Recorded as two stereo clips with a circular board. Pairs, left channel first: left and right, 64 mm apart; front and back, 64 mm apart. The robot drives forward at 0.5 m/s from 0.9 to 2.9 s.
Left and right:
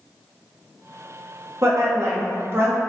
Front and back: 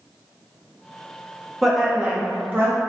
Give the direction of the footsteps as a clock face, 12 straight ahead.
No footsteps in this recording.